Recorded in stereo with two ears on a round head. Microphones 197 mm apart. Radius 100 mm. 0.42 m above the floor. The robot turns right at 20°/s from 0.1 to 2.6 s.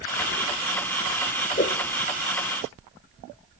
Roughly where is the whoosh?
Left.